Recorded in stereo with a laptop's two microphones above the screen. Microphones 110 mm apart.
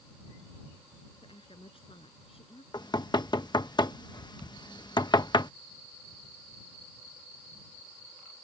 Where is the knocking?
40° left (ahead or behind).